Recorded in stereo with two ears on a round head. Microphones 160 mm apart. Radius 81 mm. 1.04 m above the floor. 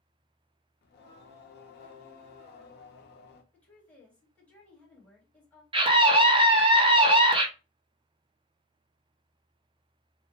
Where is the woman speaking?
10° left (ahead or behind), 1.4 m.